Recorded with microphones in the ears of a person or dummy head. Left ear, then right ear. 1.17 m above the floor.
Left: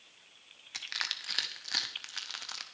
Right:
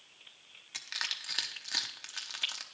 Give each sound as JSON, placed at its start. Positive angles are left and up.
{"t": 0.7, "sound": "crushing", "side_deg": 5, "distance_m": 0.8}